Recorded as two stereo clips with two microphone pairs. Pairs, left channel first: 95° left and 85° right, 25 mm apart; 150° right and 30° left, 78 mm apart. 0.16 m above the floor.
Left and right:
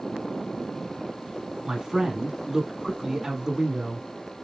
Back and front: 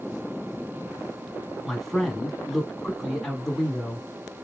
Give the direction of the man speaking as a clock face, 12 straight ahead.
2 o'clock.